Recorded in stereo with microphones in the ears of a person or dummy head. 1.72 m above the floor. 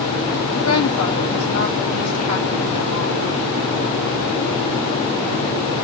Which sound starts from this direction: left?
A woman speaking, at 0.5 s.